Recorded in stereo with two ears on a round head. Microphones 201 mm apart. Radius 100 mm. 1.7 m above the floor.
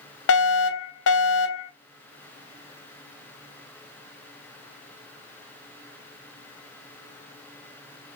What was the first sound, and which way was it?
A fire alarm, 55° left (ahead or behind).